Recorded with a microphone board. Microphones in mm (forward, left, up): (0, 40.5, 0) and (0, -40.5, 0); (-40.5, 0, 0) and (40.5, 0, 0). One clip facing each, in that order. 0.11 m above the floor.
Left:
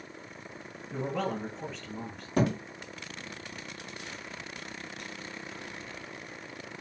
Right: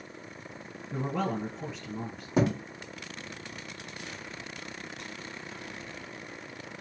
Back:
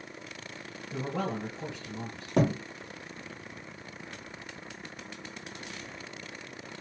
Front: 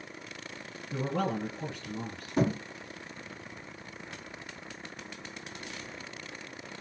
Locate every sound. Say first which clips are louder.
0.9 s a man speaking: right 1 dB, front 2 dB; 20° right, 1.7 m
2.4 s a thud: right 1 dB, back 2 dB; 165° right, 1.0 m